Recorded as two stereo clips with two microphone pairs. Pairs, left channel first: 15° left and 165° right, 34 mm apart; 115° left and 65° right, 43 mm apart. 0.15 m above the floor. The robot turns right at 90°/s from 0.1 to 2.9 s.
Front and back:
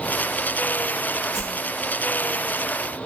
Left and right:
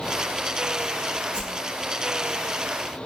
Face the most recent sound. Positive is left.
turn(degrees=40)